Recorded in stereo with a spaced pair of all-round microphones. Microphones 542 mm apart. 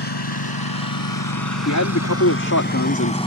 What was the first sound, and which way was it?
A lawn mower, 45° left (ahead or behind).